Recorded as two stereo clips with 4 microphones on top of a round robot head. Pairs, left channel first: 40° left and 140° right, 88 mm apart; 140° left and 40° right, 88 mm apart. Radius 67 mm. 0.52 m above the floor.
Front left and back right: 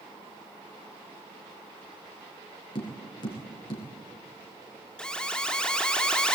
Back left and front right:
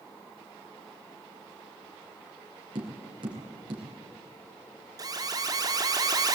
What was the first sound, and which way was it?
Tapping, straight ahead.